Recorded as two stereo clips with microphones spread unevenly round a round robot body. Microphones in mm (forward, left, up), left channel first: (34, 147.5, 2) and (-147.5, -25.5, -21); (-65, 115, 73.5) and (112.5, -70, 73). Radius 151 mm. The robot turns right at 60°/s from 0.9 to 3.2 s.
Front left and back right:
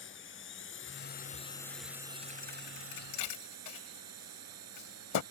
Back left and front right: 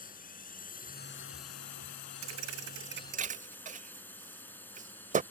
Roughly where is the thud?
Ahead right.